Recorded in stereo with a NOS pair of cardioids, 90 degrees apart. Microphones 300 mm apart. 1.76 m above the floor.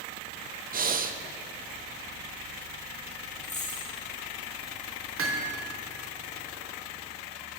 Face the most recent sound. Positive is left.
turn(degrees=-50)